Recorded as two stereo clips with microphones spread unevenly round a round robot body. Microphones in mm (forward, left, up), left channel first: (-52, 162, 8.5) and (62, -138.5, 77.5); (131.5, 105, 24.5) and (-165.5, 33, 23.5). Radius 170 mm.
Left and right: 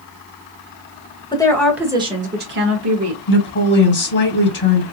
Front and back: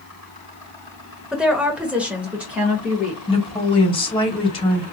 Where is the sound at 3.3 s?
85° left, 2 m.